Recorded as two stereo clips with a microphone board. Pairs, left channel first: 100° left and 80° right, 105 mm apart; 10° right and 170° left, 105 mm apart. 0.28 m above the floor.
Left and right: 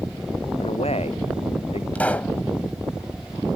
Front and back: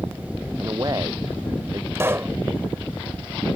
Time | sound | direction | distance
0.6 | a man speaking | 115° left | ?
1.9 | a pop | 155° left | ?